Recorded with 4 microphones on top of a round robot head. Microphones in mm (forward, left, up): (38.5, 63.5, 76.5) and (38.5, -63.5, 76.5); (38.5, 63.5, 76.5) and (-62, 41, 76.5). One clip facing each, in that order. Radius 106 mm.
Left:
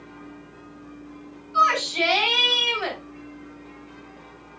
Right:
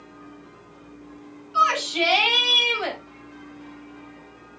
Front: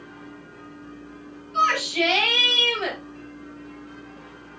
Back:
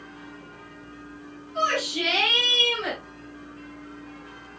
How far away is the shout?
About 4.5 m.